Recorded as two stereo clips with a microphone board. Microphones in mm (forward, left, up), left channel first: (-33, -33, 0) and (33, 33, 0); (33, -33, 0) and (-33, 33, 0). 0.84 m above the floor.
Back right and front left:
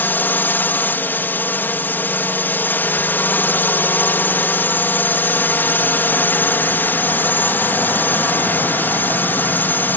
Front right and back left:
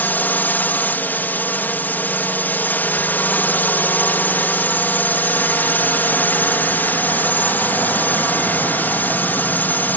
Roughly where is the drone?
Right.